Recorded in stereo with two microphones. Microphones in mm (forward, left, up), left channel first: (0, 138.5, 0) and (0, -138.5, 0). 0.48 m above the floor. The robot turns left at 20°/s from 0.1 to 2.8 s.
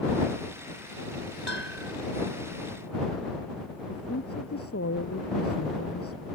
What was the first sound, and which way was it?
A bell, 70° right (ahead or behind).